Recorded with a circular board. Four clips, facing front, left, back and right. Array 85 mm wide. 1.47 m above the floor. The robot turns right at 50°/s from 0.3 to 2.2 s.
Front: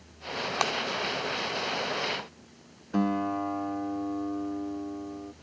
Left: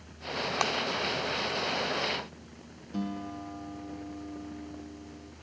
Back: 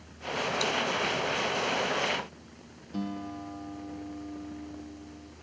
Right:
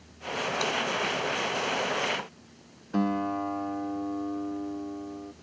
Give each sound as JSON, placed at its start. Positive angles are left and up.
{"t": 0.6, "sound": "breaking glass", "azimuth_deg": 30}
{"t": 2.9, "sound": "a guitar", "azimuth_deg": -45}